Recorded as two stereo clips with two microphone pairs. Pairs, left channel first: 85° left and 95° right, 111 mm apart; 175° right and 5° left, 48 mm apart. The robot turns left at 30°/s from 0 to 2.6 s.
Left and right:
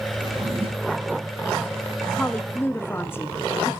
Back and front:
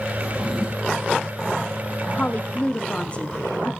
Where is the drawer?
55° right, 5.5 m; by 1.0 s 80° right, 5.5 m.